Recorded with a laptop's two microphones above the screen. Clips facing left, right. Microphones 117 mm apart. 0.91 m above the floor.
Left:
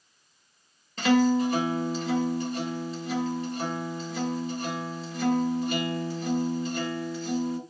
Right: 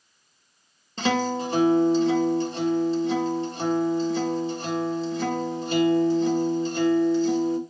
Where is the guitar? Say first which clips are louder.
Left 3 dB; 30° right (ahead or behind), 1.7 m.